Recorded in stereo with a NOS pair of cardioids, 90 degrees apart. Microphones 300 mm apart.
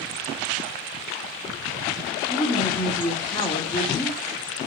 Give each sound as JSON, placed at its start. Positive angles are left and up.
{"t": 2.3, "sound": "a woman speaking", "azimuth_deg": 15, "distance_m": 1.9}